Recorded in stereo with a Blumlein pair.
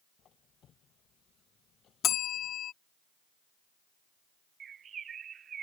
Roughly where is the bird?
Ahead right.